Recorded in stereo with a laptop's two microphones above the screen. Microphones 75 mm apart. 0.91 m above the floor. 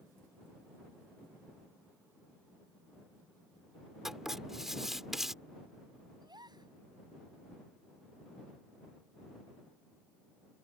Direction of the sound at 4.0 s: 5° right (ahead or behind).